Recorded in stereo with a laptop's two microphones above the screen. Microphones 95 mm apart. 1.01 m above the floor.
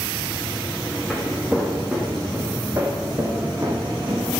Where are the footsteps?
5° right (ahead or behind), 4 m; by 4.3 s 45° right (ahead or behind), 5 m.